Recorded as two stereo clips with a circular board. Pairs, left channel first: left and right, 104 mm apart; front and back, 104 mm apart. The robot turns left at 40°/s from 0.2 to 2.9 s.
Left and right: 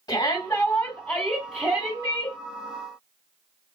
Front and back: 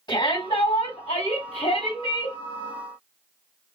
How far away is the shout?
About 3 m.